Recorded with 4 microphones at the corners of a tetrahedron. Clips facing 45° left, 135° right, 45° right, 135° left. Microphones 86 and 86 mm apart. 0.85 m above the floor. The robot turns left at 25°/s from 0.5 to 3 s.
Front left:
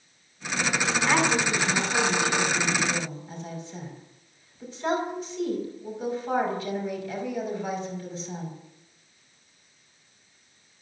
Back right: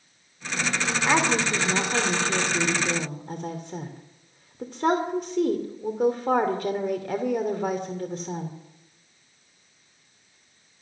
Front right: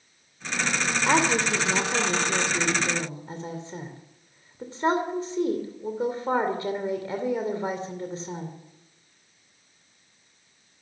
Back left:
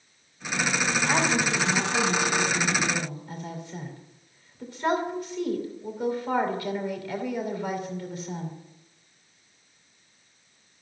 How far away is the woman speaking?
About 2.5 m.